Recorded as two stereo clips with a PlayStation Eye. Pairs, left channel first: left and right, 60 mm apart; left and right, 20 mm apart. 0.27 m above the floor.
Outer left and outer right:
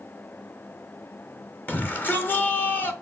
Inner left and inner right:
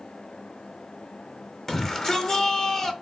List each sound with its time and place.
1.7 s a shout: 30° left (ahead or behind), 1.4 m